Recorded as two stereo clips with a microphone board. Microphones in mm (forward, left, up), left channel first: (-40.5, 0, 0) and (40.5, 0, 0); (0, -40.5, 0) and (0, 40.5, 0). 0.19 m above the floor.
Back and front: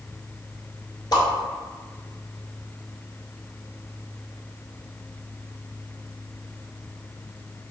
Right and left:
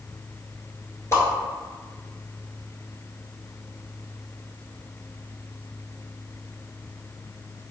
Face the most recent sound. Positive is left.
turn(degrees=-150)